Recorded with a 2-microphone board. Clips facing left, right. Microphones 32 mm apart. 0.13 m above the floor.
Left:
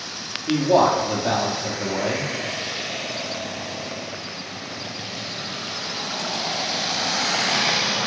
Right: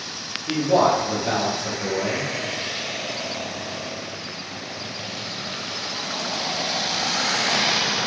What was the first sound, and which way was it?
A man speaking, 25° left (ahead or behind).